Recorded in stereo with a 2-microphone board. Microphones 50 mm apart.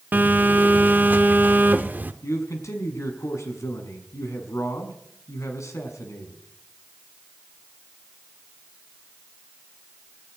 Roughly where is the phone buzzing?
Right.